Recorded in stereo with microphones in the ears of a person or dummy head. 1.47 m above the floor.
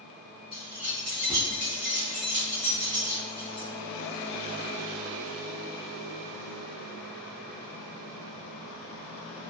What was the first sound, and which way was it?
Keys jangling, 25° right (ahead or behind).